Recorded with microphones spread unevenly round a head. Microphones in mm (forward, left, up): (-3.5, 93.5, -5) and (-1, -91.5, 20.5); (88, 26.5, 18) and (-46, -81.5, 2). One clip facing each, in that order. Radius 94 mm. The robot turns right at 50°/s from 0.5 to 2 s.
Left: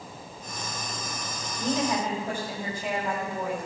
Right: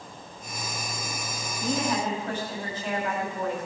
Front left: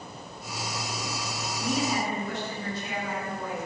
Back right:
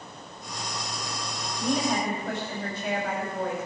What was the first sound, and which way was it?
A woman speaking, 150° left.